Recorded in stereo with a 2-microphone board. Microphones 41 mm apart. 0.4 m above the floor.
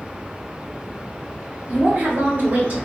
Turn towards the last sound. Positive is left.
turn(degrees=-45)  # may be behind; listen again after turning